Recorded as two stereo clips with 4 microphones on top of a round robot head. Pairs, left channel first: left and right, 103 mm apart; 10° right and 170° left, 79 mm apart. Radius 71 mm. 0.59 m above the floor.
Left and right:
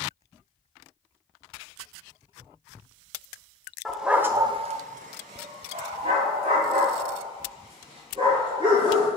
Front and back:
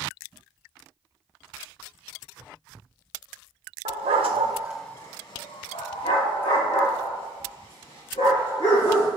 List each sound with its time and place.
3.9 s a dog barking: straight behind, 0.9 m; by 9.1 s 35° right, 4.5 m